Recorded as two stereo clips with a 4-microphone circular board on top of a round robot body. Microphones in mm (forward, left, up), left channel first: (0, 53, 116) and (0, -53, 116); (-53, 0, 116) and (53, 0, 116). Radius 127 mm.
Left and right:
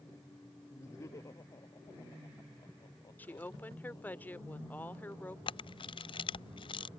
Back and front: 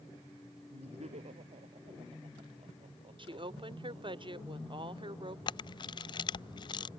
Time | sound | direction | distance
0.7 | laughter | 25° left | ?
3.2 | a woman speaking | 20° left | ?
5.5 | a camera shutter | 130° left | ?